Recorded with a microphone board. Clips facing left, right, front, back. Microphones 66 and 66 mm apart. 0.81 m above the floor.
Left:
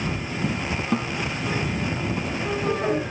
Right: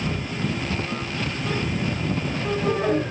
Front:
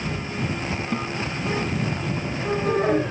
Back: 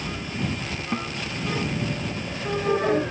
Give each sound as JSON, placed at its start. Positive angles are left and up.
{"t": 0.9, "sound": "a guitar", "azimuth_deg": 105}